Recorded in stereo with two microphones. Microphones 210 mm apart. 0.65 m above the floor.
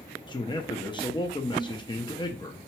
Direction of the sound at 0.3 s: 25° left (ahead or behind).